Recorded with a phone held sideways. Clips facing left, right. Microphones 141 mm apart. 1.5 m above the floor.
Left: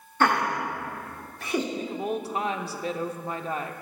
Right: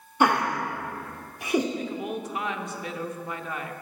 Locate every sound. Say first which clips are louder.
0.2 s laughter: right 1 dB; 15° right (ahead or behind), 0.8 m
1.8 s a woman speaking: left 2 dB; 35° left (ahead or behind), 0.7 m